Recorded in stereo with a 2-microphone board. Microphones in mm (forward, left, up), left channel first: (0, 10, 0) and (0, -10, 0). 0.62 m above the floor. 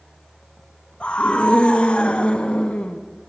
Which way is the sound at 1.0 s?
85° left.